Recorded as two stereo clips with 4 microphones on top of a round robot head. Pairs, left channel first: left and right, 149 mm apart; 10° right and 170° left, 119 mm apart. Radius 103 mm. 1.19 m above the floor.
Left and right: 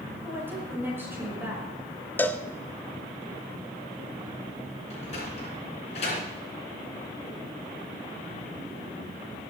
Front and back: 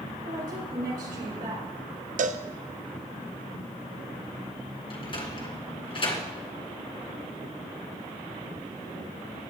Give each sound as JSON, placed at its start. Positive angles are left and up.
{"t": 0.2, "sound": "a woman speaking", "azimuth_deg": -165, "distance_m": 5.5}
{"t": 2.2, "sound": "a cowbell", "azimuth_deg": 170, "distance_m": 0.8}
{"t": 4.9, "sound": "a sliding door", "azimuth_deg": 30, "distance_m": 3.0}